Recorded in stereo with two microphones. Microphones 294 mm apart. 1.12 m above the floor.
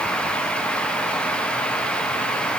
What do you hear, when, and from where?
Only background noise.